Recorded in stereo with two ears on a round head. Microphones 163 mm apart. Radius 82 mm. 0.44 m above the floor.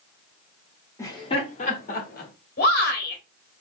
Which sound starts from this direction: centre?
Laughter, at 1.0 s.